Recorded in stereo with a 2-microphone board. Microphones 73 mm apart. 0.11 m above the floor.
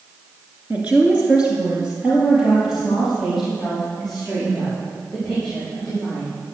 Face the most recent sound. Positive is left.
turn(degrees=-5)  # may be behind; listen again after turning